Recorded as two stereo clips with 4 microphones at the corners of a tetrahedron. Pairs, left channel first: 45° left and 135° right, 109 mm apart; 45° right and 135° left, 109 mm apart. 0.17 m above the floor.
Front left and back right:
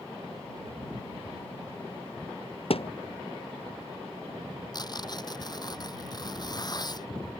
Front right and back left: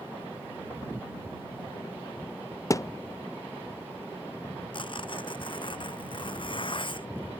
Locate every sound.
2.7 s a thud: 15° left
4.7 s tearing paper: 5° right